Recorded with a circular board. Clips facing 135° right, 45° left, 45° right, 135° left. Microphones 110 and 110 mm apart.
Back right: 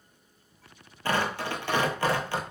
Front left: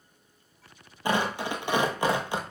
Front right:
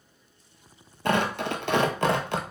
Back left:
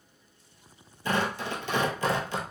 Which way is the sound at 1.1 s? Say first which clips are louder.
Front left 1 dB, front right 4 dB; 30° right.